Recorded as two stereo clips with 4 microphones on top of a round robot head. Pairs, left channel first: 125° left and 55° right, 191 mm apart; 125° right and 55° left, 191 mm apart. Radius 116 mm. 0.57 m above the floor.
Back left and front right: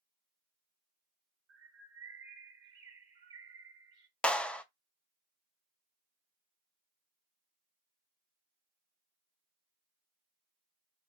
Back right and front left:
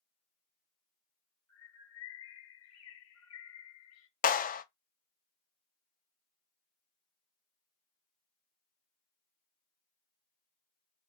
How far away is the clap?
About 0.5 m.